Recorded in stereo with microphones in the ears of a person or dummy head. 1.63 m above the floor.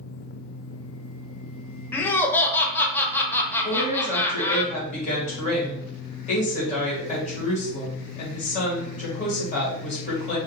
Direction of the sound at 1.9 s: 10° left (ahead or behind).